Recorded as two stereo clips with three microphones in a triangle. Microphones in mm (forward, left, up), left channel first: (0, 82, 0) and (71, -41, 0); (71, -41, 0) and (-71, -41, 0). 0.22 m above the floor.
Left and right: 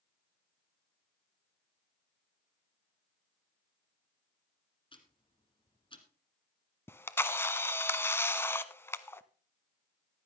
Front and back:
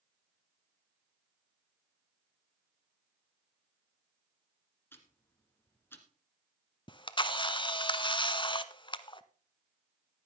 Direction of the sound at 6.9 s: 50° left.